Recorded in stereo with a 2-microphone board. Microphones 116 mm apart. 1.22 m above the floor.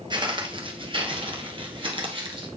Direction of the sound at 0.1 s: 40° right (ahead or behind).